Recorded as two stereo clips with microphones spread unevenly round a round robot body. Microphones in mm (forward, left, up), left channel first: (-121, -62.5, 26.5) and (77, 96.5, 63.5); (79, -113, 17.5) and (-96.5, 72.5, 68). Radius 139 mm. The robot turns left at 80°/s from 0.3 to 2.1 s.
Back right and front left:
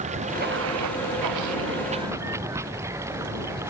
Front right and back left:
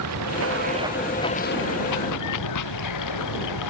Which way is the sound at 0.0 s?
100° left.